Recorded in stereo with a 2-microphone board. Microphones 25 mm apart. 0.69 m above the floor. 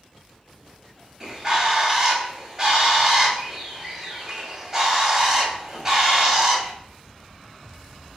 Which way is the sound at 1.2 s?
15° right (ahead or behind).